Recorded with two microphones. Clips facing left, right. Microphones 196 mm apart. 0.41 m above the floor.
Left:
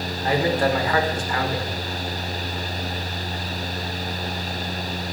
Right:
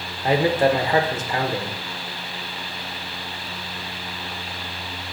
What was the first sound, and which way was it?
A man speaking, 25° right (ahead or behind).